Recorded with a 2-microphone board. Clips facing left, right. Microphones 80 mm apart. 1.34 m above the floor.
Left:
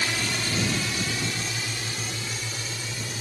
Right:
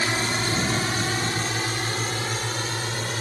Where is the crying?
No crying in this recording.